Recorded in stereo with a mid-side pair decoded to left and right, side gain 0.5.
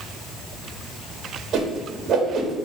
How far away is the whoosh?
About 1.6 m.